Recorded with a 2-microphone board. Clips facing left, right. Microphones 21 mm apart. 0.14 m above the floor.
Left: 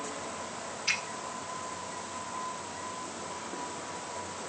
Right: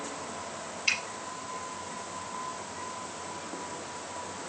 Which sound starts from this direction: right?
A finger snap, at 0.9 s.